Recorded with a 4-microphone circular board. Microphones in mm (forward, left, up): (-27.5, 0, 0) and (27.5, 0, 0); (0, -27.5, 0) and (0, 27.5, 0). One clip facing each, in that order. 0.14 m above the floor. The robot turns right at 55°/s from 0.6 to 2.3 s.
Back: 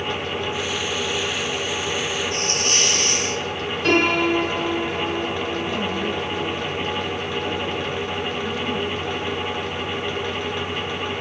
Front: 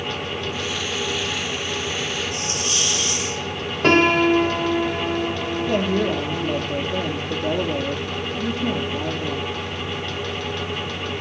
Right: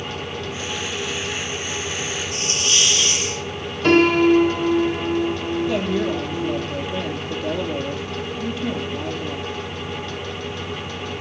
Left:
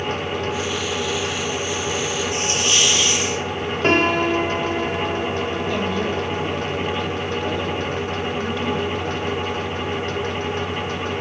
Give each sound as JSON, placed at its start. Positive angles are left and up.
{"t": 2.3, "sound": "a hiss", "azimuth_deg": 155, "distance_m": 3.0}
{"t": 3.8, "sound": "a piano", "azimuth_deg": 35, "distance_m": 7.5}
{"t": 5.7, "sound": "a woman speaking", "azimuth_deg": -10, "distance_m": 4.0}